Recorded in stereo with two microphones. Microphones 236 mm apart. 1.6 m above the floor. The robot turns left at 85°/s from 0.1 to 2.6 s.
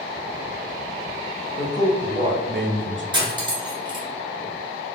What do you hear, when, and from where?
1.6 s a man speaking: 35° left, 0.5 m; by 3.0 s 55° right, 0.5 m
3.1 s cutlery clinking: 20° right (ahead or behind), 0.8 m